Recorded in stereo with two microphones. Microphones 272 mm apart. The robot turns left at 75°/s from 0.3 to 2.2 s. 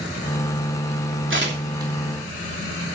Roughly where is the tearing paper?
Right.